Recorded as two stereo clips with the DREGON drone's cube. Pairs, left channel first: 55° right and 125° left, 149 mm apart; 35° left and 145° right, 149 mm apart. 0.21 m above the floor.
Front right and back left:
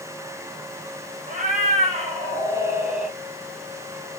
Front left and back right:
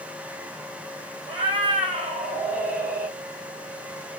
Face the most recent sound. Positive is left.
turn(degrees=-150)